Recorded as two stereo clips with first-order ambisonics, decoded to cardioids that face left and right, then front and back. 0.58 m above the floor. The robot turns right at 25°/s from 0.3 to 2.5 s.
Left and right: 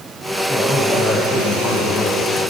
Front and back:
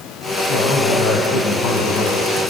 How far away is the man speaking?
About 4.5 m.